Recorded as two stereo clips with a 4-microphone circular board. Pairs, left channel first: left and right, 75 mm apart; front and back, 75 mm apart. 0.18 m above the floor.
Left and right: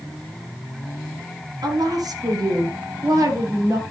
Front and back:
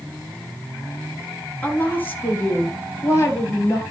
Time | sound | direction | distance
1.6 | a woman speaking | 70° right | 2.5 m